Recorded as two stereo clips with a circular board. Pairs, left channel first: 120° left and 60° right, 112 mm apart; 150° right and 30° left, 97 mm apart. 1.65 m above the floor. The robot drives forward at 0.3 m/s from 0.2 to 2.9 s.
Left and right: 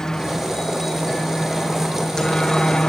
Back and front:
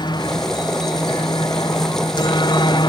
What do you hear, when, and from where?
0.0 s a helicopter: 155° right; by 2.9 s 160° right